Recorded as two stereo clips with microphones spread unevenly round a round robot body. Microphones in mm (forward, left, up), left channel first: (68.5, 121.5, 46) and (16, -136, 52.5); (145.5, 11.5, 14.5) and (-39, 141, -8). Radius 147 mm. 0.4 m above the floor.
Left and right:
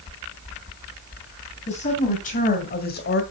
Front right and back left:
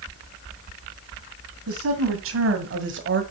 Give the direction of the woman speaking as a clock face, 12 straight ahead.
7 o'clock.